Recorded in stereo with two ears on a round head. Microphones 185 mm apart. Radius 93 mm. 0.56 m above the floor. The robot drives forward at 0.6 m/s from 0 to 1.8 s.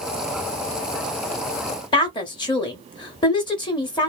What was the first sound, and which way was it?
A woman speaking, 20° left (ahead or behind).